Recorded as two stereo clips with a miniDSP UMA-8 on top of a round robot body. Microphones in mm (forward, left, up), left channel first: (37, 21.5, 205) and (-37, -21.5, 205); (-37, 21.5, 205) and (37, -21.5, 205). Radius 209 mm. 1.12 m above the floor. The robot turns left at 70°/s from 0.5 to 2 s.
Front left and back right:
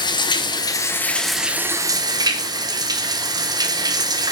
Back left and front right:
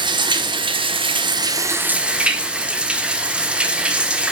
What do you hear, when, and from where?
0.0 s running water: straight ahead, 1.2 m; by 4.3 s 105° right, 1.2 m